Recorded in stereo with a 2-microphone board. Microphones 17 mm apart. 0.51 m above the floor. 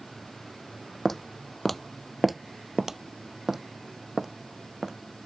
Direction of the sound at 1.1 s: 15° left (ahead or behind).